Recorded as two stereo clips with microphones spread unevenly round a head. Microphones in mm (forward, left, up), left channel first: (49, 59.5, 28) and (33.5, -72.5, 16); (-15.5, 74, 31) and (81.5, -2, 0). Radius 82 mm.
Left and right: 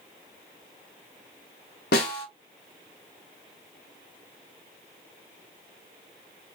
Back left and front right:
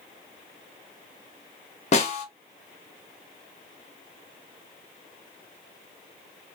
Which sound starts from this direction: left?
A snare drum, at 1.9 s.